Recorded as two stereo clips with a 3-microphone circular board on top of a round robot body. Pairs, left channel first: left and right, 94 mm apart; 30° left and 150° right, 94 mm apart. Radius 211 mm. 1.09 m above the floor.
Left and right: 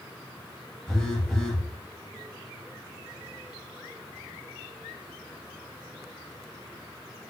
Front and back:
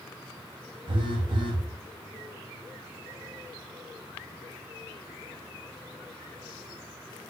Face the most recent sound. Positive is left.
turn(degrees=175)